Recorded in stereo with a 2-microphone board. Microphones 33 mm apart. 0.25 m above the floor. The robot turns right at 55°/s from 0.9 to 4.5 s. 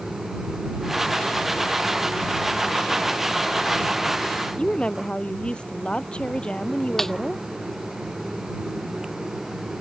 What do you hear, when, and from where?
4.6 s a woman speaking: 30° left (ahead or behind)
7.0 s a snare drum: 10° left (ahead or behind)